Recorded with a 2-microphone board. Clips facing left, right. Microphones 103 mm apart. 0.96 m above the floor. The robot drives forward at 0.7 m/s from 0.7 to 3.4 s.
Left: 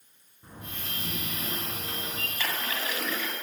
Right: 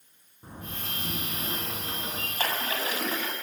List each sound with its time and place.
0.4 s a door slam: 25° right (ahead or behind), 7.5 m; by 2.3 s 30° right (ahead or behind), 6.5 m
2.4 s a splash: 40° right (ahead or behind), 5 m; by 3.3 s 35° right (ahead or behind), 6 m